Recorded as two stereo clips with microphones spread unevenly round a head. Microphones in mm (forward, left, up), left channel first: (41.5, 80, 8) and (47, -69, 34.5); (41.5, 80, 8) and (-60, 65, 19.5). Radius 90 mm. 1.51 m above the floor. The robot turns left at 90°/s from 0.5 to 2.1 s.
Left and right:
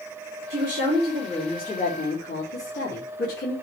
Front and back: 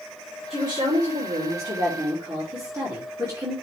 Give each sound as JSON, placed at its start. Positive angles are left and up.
{"t": 0.5, "sound": "a woman speaking", "azimuth_deg": -85, "distance_m": 3.0}